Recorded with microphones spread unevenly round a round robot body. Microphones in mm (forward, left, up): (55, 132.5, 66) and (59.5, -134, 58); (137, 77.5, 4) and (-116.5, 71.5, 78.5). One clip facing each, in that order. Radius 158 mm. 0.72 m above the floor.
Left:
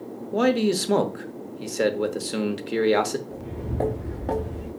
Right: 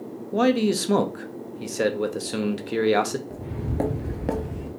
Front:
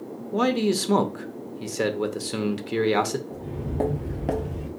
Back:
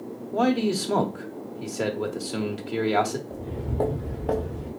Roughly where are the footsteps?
Right.